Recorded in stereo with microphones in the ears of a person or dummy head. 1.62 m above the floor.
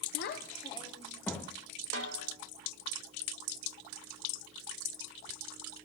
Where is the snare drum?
65° right (ahead or behind), 2 m.